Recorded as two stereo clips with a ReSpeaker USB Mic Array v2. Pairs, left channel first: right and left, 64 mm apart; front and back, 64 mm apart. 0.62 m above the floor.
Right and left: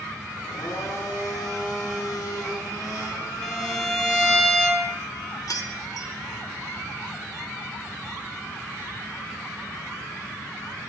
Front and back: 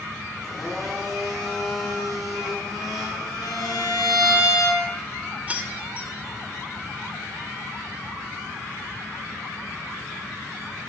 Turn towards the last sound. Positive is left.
turn(degrees=-115)